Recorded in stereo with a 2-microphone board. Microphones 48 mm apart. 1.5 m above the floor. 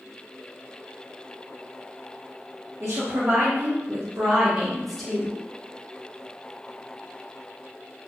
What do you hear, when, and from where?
2.8 s a woman speaking: 80° right, 0.9 m; by 5.3 s 20° left (ahead or behind), 0.8 m